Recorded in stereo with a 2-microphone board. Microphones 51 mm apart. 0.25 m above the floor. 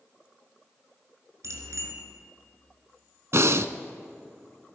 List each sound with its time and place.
1.4 s a bicycle bell: 70° right (ahead or behind), 2 m
3.3 s breathing: 60° right (ahead or behind), 0.6 m